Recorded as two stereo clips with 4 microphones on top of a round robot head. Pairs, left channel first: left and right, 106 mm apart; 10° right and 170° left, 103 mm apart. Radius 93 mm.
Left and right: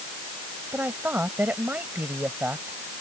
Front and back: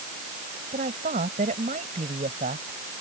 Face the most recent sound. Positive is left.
turn(degrees=-165)